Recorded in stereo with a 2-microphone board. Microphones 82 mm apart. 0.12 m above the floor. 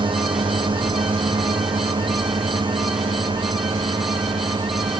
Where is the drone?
75° right (ahead or behind); by 5.0 s 70° right (ahead or behind).